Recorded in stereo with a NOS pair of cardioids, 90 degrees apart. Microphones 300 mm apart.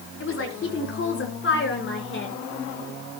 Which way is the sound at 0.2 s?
45° left.